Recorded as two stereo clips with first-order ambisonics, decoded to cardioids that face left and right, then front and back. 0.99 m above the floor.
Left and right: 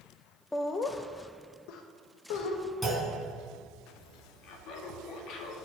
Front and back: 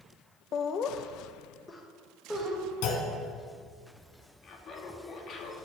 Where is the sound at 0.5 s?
20° left, 0.6 m; by 2.6 s 90° left, 1.4 m.